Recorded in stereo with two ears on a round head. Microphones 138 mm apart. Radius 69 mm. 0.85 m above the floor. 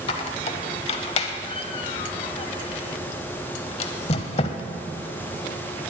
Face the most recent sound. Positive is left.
turn(degrees=40)  # may be behind; listen again after turning